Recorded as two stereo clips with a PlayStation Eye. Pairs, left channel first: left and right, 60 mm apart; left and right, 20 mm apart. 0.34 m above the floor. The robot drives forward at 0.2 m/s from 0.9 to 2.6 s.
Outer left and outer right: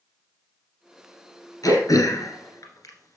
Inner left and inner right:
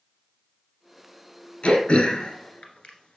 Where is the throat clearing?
85° left, 1.6 m; by 3.2 s 75° left (ahead or behind), 1.6 m.